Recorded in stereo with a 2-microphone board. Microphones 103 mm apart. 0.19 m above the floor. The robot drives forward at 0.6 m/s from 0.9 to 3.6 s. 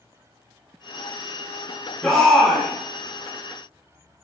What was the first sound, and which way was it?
A shout, 5° left (ahead or behind).